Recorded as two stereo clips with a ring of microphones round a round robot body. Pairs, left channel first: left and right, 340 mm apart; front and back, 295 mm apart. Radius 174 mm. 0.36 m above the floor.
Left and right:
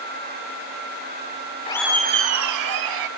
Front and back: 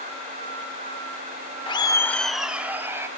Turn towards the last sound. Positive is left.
turn(degrees=-100)